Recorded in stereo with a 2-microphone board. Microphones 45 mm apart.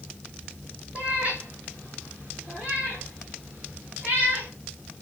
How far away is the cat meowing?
About 1.8 m.